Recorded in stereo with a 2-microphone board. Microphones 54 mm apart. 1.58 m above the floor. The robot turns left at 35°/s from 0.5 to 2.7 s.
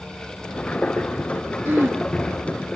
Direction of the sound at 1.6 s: 40° right (ahead or behind).